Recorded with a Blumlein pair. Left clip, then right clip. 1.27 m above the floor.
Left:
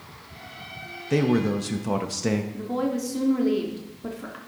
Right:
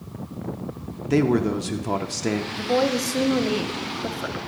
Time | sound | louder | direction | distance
1.1 | a man speaking | right 2 dB | 5° right | 0.6 m
2.5 | a woman speaking | right 6 dB | 20° right | 0.9 m